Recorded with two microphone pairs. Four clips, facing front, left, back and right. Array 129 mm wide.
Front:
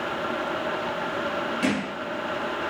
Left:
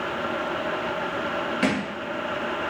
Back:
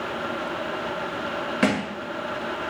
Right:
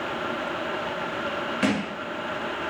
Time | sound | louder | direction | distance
1.6 | a thud | right 1 dB, back 5 dB | 170° right | 0.9 m